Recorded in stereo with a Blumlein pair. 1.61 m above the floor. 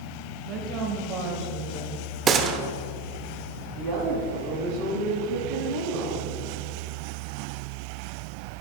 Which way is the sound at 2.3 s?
20° right.